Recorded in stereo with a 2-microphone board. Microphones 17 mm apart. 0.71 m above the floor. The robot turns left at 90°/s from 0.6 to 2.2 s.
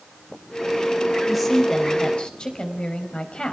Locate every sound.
1.2 s a woman speaking: 160° right, 5 m; by 3.5 s 110° left, 5 m